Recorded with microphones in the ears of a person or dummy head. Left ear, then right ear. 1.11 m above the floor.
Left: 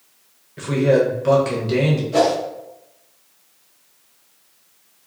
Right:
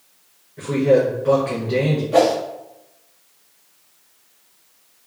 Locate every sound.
0.6 s a man speaking: 75° left (ahead or behind), 0.8 m
2.1 s a whoosh: 20° right (ahead or behind), 0.6 m